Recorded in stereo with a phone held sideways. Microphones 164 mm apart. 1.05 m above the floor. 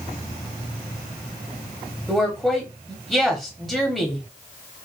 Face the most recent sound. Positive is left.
turn(degrees=0)  # may be behind; listen again after turning